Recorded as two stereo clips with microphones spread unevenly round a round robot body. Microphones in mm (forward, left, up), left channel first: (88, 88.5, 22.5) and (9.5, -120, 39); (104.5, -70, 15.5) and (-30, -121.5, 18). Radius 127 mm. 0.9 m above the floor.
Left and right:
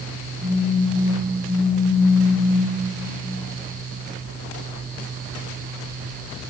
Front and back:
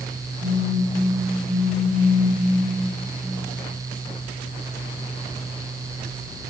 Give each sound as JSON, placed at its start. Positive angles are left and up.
{"t": 0.4, "sound": "a phone buzzing", "azimuth_deg": -170, "distance_m": 7.0}